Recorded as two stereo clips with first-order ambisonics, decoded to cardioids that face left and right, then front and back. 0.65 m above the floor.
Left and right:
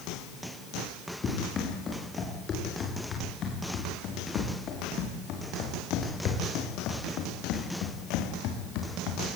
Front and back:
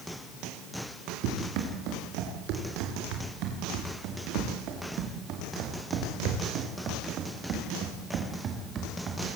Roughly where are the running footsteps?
Behind left.